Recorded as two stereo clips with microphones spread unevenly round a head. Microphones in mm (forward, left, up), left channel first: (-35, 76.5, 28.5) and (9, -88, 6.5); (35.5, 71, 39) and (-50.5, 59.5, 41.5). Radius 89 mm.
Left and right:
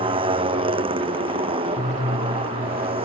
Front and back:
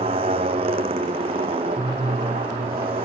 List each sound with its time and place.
0.0 s a motorcycle: 135° right